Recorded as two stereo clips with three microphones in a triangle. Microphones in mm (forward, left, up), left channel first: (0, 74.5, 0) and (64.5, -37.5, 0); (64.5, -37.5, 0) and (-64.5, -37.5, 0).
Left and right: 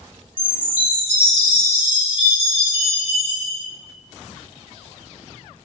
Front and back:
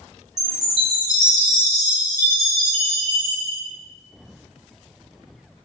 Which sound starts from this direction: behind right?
A chime, at 0.4 s.